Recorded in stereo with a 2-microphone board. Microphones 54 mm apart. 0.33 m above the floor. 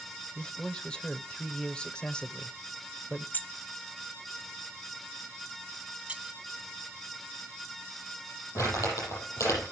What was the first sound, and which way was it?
A man speaking, 15° left (ahead or behind).